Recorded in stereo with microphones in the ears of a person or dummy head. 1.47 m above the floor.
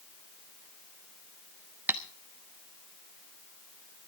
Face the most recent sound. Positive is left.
turn(degrees=-15)  # may be behind; listen again after turning